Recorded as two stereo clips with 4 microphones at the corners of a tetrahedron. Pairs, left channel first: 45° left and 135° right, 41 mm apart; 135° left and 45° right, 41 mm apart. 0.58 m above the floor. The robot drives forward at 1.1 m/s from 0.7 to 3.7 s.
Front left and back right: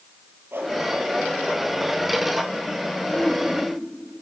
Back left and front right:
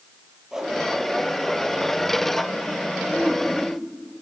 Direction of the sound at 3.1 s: 105° left.